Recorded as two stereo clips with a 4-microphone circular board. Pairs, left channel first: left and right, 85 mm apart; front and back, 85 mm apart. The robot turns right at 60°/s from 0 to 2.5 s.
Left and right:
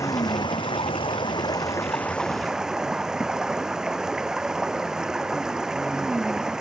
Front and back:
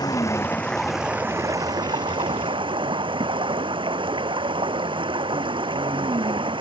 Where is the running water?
40° left; by 6.6 s 170° right.